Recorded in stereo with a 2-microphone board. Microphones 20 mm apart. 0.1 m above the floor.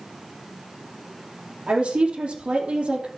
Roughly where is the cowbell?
No cowbell in this recording.